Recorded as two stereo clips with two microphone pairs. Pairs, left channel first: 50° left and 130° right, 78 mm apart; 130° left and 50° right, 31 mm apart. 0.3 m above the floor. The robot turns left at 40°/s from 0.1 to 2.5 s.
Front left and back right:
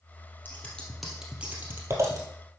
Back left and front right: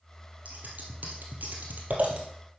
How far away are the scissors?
About 2 m.